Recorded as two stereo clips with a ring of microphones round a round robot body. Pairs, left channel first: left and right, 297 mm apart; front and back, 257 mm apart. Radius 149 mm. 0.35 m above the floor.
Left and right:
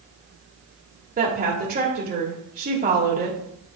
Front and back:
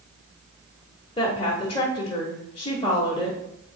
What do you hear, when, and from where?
1.2 s a woman speaking: 55° right, 1.1 m